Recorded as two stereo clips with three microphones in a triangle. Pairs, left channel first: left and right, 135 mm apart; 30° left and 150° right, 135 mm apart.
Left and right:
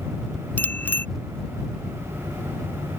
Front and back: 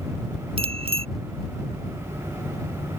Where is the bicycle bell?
165° left.